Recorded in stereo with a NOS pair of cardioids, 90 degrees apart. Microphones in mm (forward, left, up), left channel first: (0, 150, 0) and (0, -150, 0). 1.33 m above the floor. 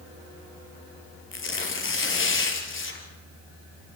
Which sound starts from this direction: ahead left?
Tearing paper, at 1.3 s.